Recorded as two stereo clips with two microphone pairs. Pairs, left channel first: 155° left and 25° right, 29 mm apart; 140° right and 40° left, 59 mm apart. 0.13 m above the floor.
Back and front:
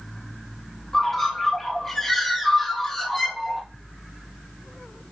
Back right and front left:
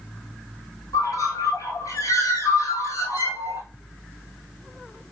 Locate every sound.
0.9 s a bird: 130° right, 1.8 m